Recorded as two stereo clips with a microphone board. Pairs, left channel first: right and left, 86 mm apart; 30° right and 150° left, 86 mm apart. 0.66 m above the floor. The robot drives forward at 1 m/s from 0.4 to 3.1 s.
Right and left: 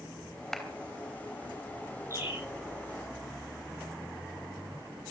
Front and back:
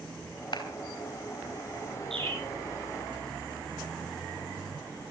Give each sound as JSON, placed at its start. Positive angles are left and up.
{"t": 0.5, "sound": "a clap", "azimuth_deg": -5, "distance_m": 3.0}
{"t": 2.1, "sound": "a bird", "azimuth_deg": 145, "distance_m": 9.5}